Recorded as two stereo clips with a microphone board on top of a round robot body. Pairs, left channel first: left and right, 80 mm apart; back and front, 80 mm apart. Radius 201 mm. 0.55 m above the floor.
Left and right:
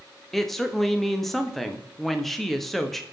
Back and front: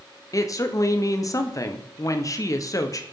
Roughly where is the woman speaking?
Behind.